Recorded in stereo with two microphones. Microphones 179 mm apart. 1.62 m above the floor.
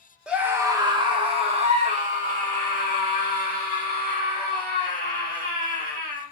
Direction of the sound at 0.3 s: 5° right (ahead or behind).